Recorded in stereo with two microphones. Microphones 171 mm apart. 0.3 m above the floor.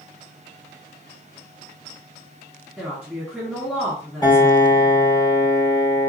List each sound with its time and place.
2.8 s a woman speaking: 5° left (ahead or behind), 3 m
4.2 s a piano: 25° left (ahead or behind), 2.5 m